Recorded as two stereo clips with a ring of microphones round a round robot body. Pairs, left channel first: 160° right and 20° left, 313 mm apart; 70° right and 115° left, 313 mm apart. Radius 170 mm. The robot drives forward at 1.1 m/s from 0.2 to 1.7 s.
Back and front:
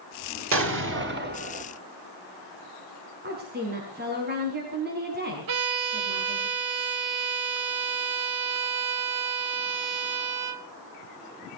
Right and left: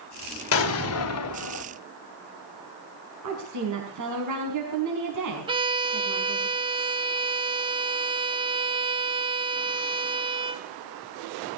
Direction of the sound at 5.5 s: 40° left.